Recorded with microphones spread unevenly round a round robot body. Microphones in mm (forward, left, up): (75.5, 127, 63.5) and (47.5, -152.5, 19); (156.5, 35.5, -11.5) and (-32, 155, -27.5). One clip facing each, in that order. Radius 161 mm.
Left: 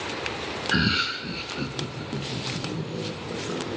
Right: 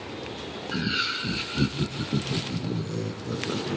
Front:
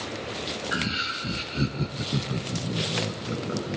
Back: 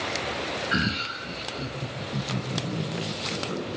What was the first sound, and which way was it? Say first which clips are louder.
Laughter: left 4 dB, back 3 dB; 135° left.